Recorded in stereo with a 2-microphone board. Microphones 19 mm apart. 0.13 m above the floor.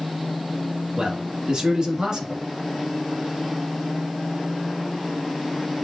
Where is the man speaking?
45° right (ahead or behind), 1.5 m.